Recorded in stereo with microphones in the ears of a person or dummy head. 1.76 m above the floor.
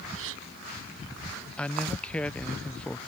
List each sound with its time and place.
0.1 s a gasp: 75° right (ahead or behind)
1.6 s a man speaking: 5° left (ahead or behind)